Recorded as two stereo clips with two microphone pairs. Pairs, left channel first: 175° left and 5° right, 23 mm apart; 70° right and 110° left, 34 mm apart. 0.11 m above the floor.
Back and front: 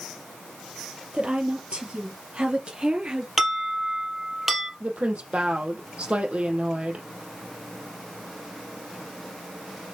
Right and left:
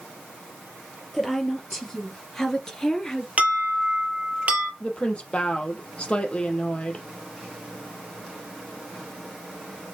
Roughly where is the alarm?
Left.